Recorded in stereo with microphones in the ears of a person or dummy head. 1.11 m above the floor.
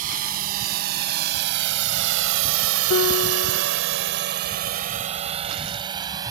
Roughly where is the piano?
Left.